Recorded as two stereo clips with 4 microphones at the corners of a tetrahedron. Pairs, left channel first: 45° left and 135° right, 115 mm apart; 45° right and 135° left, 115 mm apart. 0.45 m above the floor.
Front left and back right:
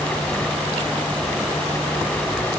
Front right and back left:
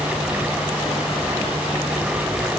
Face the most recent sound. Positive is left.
No sound to turn to.